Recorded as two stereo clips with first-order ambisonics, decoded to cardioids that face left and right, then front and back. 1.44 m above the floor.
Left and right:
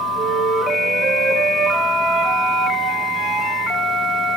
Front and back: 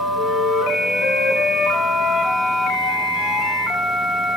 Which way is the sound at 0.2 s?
30° right.